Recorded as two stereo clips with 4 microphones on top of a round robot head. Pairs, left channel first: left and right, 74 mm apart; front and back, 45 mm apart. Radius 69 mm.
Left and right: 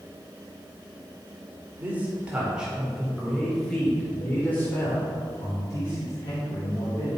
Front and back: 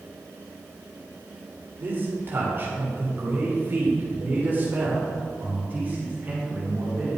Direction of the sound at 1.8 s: 150° right.